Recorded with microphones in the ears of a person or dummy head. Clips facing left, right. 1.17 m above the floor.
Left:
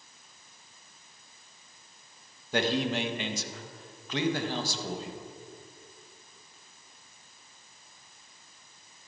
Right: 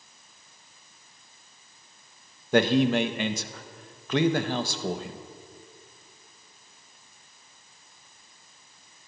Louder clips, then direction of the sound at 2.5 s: Right 7 dB; 40° right (ahead or behind).